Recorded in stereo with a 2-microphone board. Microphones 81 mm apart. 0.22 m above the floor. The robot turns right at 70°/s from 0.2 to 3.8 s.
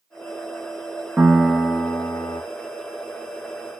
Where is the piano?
15° right, 0.8 m; by 2.4 s 70° left, 0.8 m.